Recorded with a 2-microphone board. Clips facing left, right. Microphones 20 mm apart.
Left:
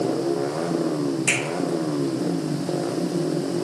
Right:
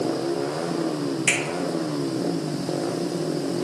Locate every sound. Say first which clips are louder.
1.3 s a finger snap: right 1 dB; 20° right (ahead or behind), 1.5 m